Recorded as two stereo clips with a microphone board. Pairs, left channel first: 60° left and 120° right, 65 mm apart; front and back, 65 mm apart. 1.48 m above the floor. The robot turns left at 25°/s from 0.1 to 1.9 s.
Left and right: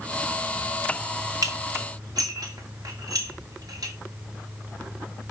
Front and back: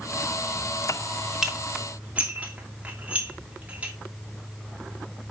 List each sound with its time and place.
1.4 s dishes clattering: 100° right, 2 m; by 3.9 s 115° right, 2 m